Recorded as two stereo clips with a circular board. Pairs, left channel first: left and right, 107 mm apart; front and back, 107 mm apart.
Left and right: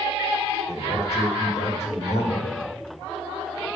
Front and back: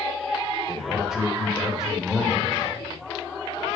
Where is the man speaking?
95° left, 2.5 m.